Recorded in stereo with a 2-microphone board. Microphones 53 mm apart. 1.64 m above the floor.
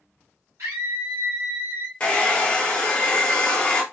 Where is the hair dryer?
25° left (ahead or behind), 0.8 m.